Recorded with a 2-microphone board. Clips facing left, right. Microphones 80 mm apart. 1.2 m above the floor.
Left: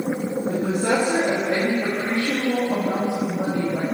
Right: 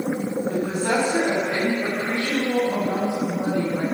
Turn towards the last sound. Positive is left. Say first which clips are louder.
# left 2 dB
turn(degrees=80)